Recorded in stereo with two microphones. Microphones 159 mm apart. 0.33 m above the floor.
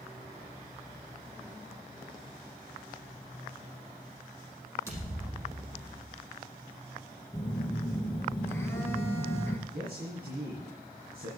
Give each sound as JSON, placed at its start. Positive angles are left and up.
{"t": 4.9, "sound": "a thud", "side_deg": -15, "distance_m": 5.0}
{"t": 7.3, "sound": "a phone buzzing", "side_deg": 15, "distance_m": 1.6}
{"t": 9.7, "sound": "a man speaking", "side_deg": -65, "distance_m": 4.5}